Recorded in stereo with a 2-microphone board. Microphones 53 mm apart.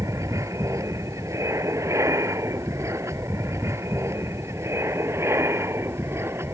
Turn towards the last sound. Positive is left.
turn(degrees=-50)  # may be behind; listen again after turning